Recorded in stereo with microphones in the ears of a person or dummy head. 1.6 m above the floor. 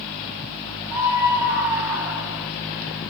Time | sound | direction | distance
0.9 | a scream | 15° right (ahead or behind) | 4 m